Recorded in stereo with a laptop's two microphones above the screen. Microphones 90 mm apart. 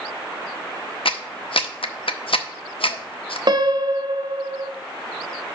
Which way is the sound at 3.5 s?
55° right (ahead or behind).